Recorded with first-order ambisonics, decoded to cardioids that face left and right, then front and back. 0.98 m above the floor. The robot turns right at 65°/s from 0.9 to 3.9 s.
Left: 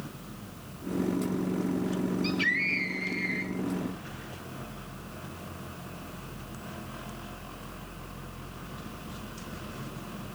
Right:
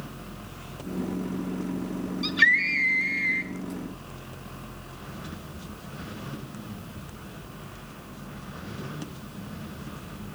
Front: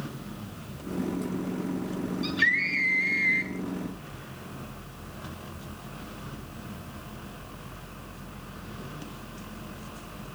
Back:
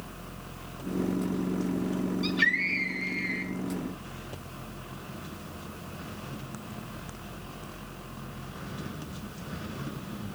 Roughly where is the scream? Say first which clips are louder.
Right 8 dB, front 2 dB; right.